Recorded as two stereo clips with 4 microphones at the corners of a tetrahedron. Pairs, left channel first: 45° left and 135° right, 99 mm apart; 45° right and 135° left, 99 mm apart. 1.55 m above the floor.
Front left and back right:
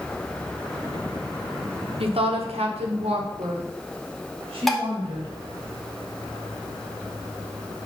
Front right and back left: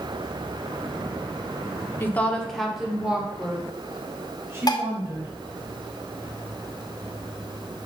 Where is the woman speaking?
115° right, 1.1 m; by 5.3 s 165° right, 3.5 m.